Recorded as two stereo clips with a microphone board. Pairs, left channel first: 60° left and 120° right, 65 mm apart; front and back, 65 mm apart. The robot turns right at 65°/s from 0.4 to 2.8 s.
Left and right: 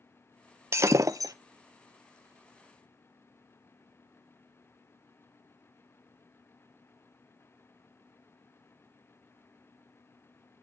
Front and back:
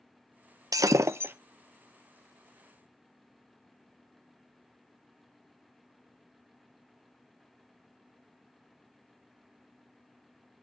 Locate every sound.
0.7 s breaking glass: 165° right, 0.5 m; by 1.3 s 125° right, 0.5 m